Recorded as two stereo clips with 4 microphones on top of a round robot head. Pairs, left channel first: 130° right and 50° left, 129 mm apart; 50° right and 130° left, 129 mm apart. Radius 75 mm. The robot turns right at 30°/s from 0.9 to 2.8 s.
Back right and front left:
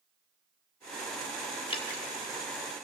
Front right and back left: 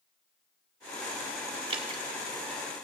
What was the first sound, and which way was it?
Dripping, straight behind.